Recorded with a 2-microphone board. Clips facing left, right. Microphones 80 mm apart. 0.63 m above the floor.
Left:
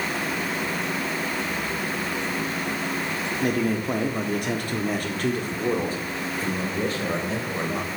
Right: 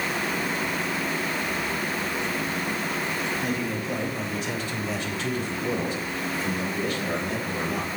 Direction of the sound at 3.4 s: 50° left (ahead or behind).